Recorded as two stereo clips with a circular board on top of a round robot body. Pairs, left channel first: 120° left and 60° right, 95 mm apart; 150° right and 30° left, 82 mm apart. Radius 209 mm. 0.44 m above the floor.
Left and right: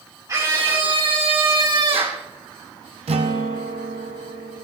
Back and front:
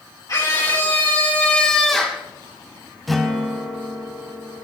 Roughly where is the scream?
Right.